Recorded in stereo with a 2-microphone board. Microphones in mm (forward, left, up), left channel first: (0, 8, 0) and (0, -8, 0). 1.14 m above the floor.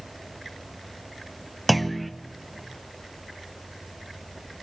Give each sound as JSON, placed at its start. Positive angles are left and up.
{"t": 1.7, "sound": "a clunk", "side_deg": 5, "distance_m": 0.7}